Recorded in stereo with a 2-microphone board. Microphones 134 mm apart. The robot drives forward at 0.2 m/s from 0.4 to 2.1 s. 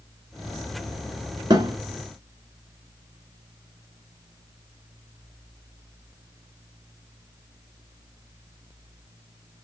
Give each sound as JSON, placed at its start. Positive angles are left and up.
{"t": 1.5, "sound": "a thud", "side_deg": -35, "distance_m": 1.2}